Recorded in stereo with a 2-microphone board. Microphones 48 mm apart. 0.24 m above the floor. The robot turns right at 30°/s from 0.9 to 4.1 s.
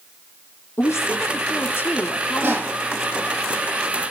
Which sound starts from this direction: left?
A woman speaking, at 0.8 s.